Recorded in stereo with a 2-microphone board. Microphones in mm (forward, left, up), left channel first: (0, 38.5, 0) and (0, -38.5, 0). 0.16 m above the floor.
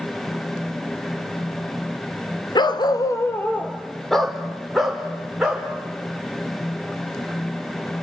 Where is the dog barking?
70° left (ahead or behind), 1.0 m; by 5.7 s 5° right (ahead or behind), 4 m.